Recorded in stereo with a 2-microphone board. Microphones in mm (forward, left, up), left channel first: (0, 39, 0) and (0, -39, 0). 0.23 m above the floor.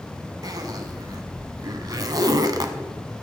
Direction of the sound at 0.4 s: 55° right (ahead or behind).